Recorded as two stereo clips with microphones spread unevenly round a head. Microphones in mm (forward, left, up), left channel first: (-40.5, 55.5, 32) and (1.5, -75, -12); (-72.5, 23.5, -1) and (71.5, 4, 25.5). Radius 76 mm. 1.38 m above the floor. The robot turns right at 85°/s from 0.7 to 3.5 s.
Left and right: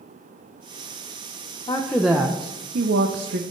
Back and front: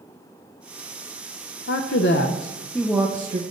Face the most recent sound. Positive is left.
turn(degrees=-45)